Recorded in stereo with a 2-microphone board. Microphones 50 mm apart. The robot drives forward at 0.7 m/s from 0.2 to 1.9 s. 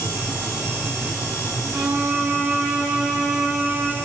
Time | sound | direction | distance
1.7 | a violin | 35° right (ahead or behind) | 6 m